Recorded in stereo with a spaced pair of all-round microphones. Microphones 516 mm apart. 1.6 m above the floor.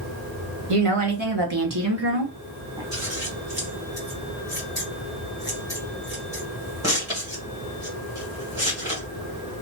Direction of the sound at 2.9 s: 5° right (ahead or behind).